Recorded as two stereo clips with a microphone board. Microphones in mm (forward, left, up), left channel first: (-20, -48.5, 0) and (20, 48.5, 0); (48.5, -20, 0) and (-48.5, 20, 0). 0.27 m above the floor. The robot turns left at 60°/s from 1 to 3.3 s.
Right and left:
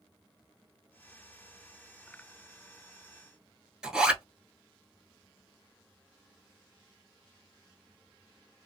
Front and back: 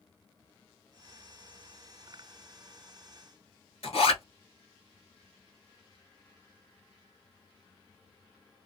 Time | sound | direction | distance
3.8 | a zipper | 15° right | 1.0 m